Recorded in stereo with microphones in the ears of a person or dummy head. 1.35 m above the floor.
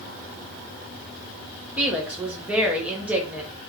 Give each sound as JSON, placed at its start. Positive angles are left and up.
{"t": 1.8, "sound": "a woman speaking", "side_deg": -10, "distance_m": 0.8}